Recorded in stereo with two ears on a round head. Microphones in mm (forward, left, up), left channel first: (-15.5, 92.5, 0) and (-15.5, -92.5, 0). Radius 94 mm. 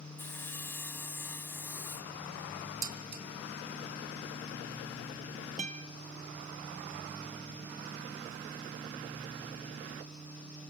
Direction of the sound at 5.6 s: 35° right (ahead or behind).